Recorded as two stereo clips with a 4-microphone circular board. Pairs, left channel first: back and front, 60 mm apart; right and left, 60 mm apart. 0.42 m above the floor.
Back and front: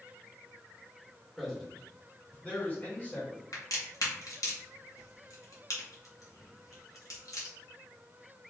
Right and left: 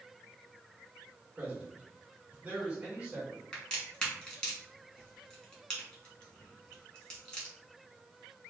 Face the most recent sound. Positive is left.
turn(degrees=-165)